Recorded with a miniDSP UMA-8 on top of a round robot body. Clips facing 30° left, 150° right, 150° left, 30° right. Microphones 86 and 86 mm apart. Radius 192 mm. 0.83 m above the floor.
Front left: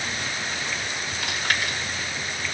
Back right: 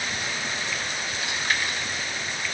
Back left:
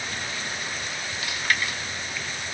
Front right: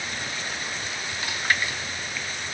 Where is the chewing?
30° left, 1.5 m.